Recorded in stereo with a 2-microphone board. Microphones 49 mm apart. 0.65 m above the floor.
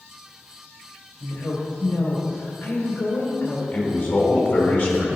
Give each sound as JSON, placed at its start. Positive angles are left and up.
{"t": 1.2, "sound": "a woman speaking", "side_deg": 65, "distance_m": 2.5}
{"t": 3.7, "sound": "a man speaking", "side_deg": 40, "distance_m": 2.5}